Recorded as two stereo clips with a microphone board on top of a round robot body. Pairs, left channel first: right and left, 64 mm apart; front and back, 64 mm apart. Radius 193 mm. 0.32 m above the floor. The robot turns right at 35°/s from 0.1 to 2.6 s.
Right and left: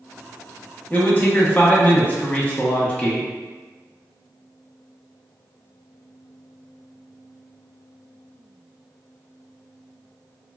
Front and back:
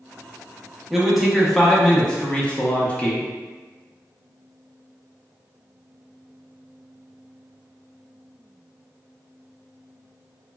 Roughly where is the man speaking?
Right.